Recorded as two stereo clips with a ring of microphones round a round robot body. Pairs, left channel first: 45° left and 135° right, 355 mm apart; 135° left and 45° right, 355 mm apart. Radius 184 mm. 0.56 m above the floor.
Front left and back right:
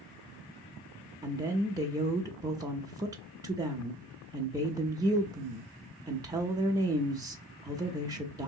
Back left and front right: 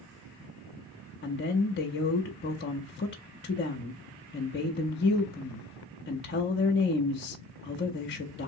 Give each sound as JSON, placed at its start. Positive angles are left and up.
{"t": 1.2, "sound": "a woman speaking", "azimuth_deg": 155, "distance_m": 0.6}